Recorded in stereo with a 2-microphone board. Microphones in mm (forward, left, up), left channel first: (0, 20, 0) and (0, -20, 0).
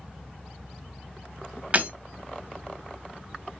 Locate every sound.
1.7 s breaking glass: 40° right (ahead or behind), 1.0 m